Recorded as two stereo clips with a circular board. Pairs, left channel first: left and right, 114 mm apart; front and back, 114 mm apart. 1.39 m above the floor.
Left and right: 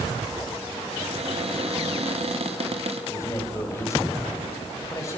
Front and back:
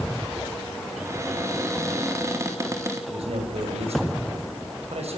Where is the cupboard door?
115° right, 3.5 m.